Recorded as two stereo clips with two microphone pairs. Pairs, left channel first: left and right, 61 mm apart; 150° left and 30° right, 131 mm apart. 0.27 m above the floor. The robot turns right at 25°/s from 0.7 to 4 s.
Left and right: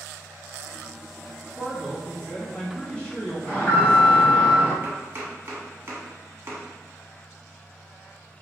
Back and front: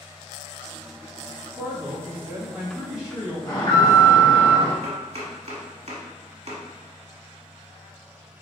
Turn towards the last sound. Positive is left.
turn(degrees=-45)